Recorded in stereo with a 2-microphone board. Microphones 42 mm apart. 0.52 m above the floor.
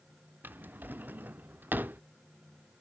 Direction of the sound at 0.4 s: 50° right (ahead or behind).